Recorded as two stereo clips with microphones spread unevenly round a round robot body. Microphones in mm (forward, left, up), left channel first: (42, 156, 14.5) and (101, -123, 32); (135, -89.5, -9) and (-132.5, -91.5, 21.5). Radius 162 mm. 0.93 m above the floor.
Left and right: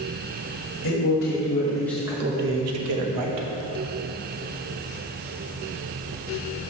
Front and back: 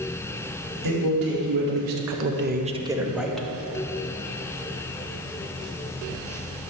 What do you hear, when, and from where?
0.8 s a man speaking: 145° left, 1.7 m; by 3.5 s 85° right, 1.6 m